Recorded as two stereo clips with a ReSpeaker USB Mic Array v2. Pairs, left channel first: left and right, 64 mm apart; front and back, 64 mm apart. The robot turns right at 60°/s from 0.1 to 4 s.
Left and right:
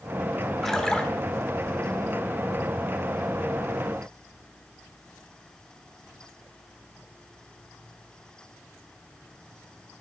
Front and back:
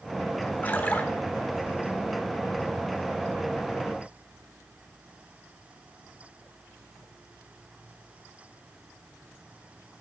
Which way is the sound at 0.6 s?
10° left.